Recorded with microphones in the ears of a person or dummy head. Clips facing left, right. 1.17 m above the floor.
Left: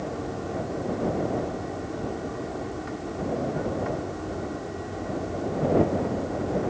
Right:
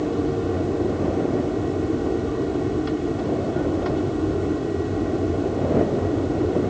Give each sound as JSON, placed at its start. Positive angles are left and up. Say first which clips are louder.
{"t": 0.0, "sound": "an aircraft", "louder": "right 9 dB", "side_deg": -45}